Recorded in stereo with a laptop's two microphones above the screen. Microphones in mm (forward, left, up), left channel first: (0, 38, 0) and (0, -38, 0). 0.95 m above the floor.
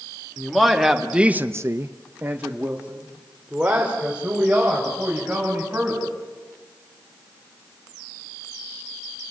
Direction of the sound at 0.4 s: Centre (ahead or behind).